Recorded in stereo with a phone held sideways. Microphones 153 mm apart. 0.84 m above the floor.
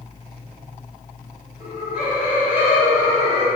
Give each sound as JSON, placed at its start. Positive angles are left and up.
{"t": 1.6, "sound": "laughter", "side_deg": 0, "distance_m": 1.7}